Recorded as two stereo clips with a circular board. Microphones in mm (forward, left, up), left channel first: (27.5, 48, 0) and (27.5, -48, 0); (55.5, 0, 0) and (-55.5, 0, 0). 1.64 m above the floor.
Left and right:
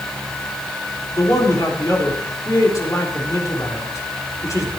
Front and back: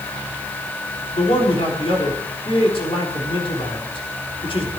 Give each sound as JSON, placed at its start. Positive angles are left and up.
{"t": 1.1, "sound": "a man speaking", "azimuth_deg": 35, "distance_m": 3.5}